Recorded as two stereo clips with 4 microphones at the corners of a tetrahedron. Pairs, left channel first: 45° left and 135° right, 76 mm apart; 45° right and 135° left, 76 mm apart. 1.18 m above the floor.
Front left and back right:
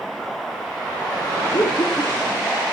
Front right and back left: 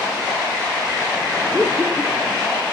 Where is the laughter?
50° left, 3 m.